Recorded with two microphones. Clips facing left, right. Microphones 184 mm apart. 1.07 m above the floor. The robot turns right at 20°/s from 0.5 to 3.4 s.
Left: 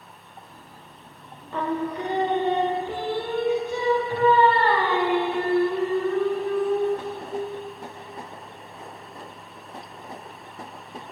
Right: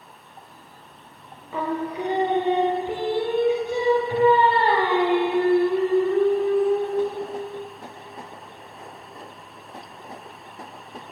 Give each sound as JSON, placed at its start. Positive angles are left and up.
{"t": 1.5, "sound": "singing", "side_deg": -5, "distance_m": 0.5}